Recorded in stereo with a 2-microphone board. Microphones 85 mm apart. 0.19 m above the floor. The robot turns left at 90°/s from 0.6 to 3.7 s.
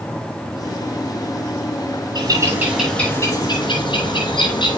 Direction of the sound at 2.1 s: 115° right.